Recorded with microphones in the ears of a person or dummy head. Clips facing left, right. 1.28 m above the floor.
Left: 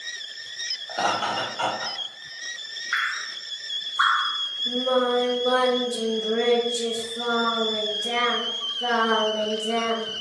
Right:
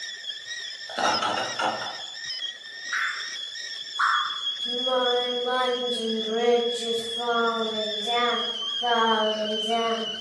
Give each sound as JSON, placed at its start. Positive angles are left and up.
{"t": 0.9, "sound": "laughter", "side_deg": -20, "distance_m": 1.3}
{"t": 2.9, "sound": "dripping", "side_deg": 45, "distance_m": 1.3}
{"t": 4.7, "sound": "singing", "side_deg": 65, "distance_m": 1.1}